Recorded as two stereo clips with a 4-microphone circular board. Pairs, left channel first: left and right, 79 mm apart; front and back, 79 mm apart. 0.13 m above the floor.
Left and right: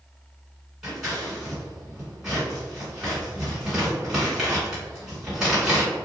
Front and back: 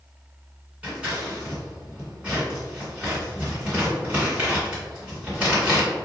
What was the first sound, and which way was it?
Scissors, 155° right.